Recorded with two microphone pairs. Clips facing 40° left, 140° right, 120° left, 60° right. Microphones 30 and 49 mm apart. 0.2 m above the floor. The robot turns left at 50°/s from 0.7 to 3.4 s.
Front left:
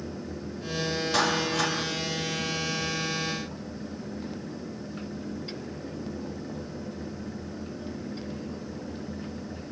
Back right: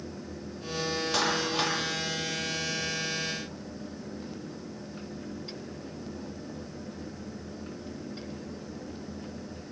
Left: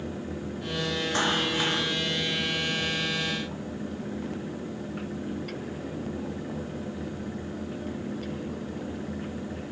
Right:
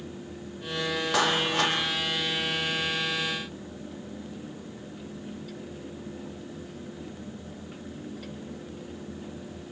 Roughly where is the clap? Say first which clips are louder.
Front left 3 dB, right 2 dB; ahead right.